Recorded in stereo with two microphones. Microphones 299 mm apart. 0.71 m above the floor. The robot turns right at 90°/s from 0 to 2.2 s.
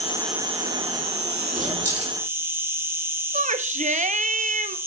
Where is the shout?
25° right (ahead or behind), 0.6 m.